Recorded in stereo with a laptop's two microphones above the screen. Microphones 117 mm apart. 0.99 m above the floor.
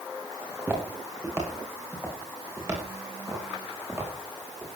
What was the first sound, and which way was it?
Footsteps, 20° right (ahead or behind).